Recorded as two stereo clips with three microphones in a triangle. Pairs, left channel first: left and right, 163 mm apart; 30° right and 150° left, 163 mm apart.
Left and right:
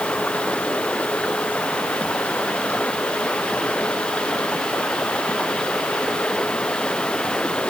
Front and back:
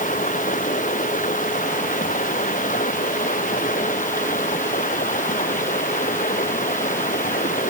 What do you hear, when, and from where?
0.0 s running water: 5° left